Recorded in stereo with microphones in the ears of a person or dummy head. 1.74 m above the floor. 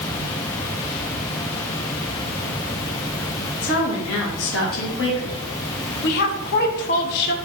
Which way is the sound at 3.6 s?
75° left (ahead or behind).